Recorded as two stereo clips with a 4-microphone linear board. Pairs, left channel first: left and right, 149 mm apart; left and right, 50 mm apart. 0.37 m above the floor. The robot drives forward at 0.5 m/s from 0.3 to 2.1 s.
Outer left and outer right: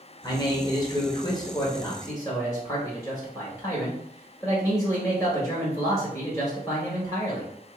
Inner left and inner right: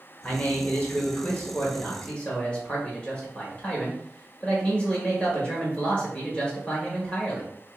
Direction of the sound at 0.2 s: 25° left (ahead or behind).